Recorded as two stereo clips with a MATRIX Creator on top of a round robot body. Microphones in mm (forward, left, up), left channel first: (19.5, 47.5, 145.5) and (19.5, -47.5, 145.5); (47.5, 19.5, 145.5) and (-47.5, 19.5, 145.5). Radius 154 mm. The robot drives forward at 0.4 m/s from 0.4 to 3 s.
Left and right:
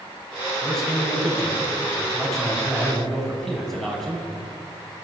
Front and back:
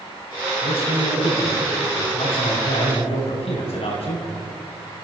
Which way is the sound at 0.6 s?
5° left.